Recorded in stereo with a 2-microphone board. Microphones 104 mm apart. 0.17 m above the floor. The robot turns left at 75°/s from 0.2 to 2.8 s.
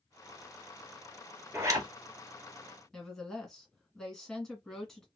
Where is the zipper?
20° right (ahead or behind), 1.3 m; by 1.9 s 45° right (ahead or behind), 1.3 m.